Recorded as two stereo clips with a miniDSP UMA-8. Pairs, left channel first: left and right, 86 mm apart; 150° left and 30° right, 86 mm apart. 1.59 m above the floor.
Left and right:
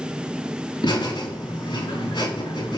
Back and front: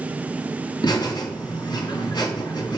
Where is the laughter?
115° left, 4 m.